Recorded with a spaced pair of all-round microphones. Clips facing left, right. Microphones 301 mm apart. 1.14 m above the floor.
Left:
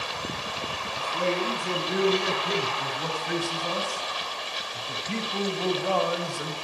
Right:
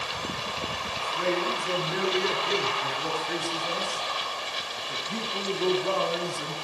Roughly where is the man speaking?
Left.